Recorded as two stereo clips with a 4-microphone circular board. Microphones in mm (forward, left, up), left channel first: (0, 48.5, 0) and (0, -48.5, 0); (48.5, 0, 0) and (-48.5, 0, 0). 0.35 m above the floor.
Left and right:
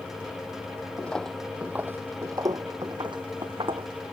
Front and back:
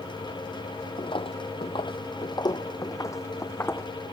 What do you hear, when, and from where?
1.0 s footsteps: 15° left; by 3.9 s 65° right